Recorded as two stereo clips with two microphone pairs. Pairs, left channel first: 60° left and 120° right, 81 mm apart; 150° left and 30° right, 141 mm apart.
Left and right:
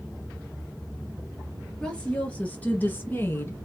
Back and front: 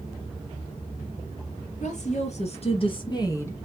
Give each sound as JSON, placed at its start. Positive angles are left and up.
{"t": 1.8, "sound": "a woman speaking", "azimuth_deg": 135, "distance_m": 2.5}